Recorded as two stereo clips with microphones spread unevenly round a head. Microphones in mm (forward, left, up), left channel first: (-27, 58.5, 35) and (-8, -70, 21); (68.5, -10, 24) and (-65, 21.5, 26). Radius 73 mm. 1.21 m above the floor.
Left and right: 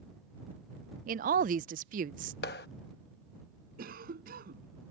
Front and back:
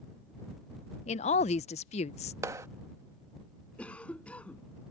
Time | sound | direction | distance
1.1 | a woman speaking | 60° right | ?
2.4 | a clap | 95° left | ?
3.8 | a cough | 95° right | ?